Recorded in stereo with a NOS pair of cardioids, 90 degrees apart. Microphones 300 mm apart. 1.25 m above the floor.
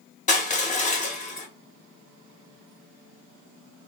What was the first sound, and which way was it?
Crushing, 25° left.